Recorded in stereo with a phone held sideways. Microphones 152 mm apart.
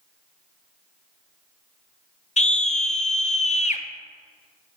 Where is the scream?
50° left (ahead or behind), 0.6 m.